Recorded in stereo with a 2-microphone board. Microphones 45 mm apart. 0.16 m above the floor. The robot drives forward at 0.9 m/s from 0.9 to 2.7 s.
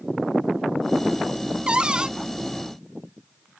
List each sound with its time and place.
1.7 s a cupboard door: 25° right (ahead or behind); by 2.1 s 20° right (ahead or behind)